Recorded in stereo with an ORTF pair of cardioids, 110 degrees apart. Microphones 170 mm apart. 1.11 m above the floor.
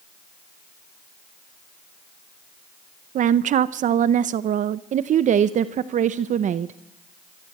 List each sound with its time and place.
3.1 s a woman speaking: 50° right, 0.6 m
4.9 s a woman speaking: 50° right, 0.8 m